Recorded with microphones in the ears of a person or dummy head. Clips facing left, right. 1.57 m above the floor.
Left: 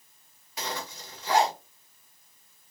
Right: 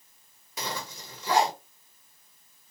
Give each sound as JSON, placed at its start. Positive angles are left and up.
{"t": 0.6, "sound": "a zipper", "side_deg": -85, "distance_m": 1.1}